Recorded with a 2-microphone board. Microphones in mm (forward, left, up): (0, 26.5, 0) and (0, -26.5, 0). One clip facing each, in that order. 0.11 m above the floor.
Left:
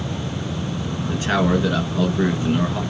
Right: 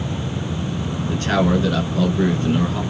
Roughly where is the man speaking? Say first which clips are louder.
Right 1 dB; centre.